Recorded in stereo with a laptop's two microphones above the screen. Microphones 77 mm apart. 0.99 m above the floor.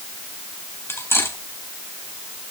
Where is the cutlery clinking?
35° left (ahead or behind), 4.5 m.